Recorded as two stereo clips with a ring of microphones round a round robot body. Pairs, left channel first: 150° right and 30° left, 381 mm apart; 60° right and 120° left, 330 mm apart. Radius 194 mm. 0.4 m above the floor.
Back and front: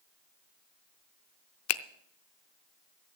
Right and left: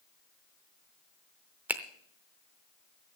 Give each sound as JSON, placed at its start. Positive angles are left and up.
{"t": 1.7, "sound": "a finger snap", "azimuth_deg": -160, "distance_m": 0.6}